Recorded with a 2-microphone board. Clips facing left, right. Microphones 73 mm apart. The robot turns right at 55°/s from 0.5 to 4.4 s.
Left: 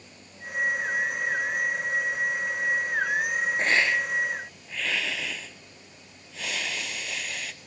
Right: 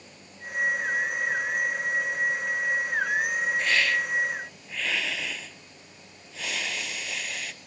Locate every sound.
3.6 s a hiss: 135° left, 0.6 m; by 7.5 s straight behind, 0.6 m